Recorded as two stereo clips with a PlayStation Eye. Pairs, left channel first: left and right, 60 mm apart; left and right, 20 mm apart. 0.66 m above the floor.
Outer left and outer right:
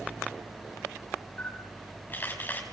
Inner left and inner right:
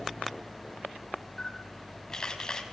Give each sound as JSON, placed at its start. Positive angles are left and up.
{"t": 1.4, "sound": "a camera shutter", "side_deg": 30, "distance_m": 5.0}